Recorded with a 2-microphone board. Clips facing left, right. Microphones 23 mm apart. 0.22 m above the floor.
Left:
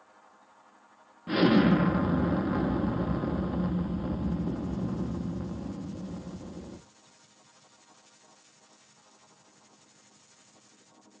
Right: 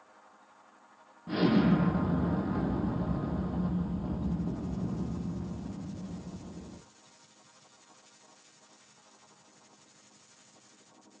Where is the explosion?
40° left (ahead or behind), 0.7 m.